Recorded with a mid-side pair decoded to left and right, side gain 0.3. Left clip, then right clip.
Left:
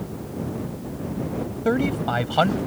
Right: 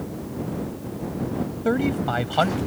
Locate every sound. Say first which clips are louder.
1.6 s a man speaking: left 1 dB; 15° left